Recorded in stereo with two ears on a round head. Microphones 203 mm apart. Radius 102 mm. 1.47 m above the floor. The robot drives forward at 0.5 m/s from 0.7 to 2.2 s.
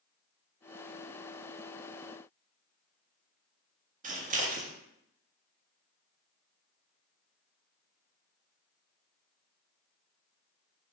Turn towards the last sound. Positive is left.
turn(degrees=-35)  # may be behind; listen again after turning